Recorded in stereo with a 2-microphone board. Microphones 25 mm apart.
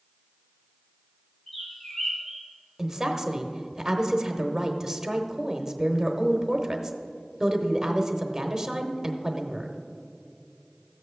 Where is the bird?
35° left (ahead or behind), 2.5 m.